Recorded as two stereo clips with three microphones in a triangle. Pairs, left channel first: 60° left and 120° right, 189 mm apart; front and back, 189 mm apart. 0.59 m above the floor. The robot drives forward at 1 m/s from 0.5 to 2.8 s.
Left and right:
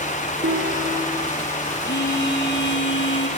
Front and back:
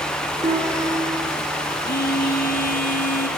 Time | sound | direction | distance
0.4 | a guitar | 125° right | 9 m
1.8 | a phone buzzing | 35° left | 5 m